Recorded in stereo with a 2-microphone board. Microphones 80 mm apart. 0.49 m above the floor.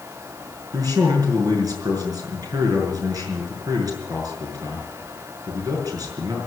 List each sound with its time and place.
0.7 s a man speaking: 50° right (ahead or behind), 6.5 m